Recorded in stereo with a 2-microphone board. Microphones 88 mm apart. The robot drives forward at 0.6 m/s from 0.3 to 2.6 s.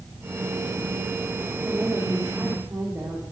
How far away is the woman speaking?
About 2 m.